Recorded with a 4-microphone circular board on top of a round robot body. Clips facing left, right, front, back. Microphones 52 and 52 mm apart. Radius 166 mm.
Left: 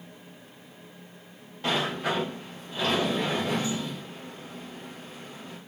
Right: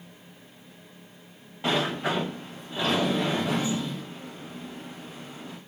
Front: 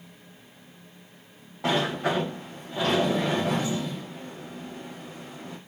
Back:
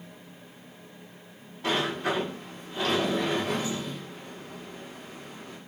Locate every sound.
1.6 s a sliding door: 10° right, 0.5 m